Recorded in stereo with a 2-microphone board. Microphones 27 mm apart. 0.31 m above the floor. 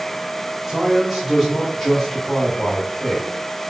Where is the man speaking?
20° right (ahead or behind), 1.5 m; by 3.3 s 25° left (ahead or behind), 1.7 m.